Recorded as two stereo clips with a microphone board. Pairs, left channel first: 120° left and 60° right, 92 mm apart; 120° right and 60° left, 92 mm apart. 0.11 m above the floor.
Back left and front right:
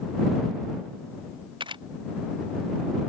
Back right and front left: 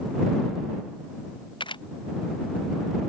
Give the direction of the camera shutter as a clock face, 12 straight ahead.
3 o'clock.